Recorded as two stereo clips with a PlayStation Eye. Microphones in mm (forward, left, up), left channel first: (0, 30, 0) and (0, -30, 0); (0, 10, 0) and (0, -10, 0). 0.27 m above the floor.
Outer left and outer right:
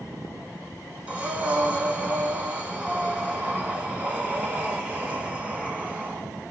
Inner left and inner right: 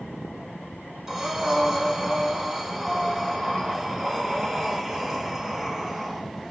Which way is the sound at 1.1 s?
25° right (ahead or behind).